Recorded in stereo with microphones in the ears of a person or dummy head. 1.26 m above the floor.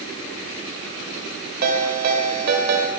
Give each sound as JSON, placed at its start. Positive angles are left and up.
{"t": 1.6, "sound": "a ringtone", "side_deg": -60, "distance_m": 2.0}